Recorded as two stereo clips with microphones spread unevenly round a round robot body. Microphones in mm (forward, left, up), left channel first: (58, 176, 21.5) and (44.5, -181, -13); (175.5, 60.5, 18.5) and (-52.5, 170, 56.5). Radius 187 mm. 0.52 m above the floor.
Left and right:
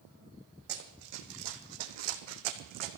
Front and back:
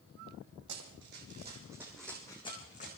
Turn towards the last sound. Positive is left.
turn(degrees=-95)